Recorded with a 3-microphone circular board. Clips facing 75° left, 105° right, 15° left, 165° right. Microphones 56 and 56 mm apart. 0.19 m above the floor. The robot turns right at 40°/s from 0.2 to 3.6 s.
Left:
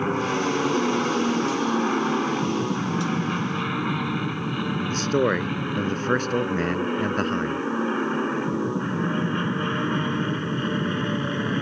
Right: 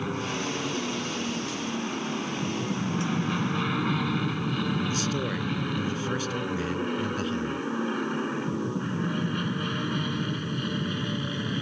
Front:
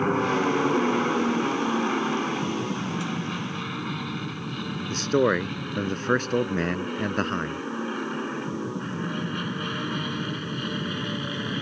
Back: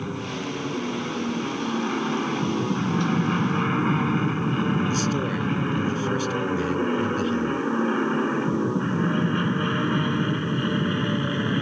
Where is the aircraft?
30° left; by 11.6 s 125° left.